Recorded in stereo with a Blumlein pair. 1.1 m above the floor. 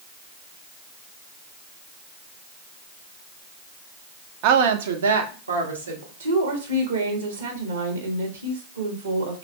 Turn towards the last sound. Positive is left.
turn(degrees=-70)